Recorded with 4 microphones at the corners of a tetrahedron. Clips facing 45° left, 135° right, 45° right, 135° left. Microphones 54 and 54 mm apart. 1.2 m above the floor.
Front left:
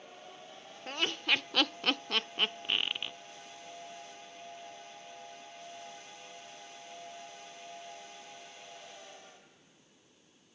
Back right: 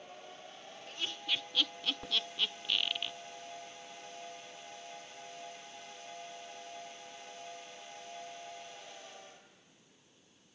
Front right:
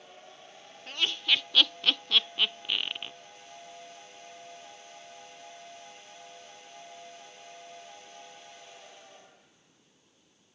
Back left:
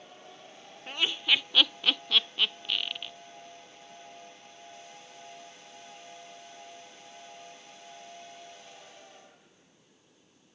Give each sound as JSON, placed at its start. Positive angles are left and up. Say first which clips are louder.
{"t": 0.9, "sound": "laughter", "louder": "front left 7 dB, back left 1 dB", "azimuth_deg": 60}